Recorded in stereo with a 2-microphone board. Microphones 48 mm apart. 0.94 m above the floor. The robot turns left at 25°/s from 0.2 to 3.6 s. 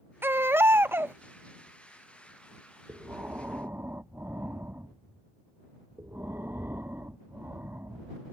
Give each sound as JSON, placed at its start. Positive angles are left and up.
{"t": 0.2, "sound": "a baby crying", "side_deg": -50}
{"t": 2.9, "sound": "breathing", "side_deg": -45}